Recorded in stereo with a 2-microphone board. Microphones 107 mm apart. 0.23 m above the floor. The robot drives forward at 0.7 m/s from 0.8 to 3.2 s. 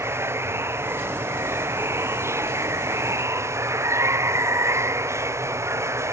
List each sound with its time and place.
0.0 s running water: 25° right (ahead or behind)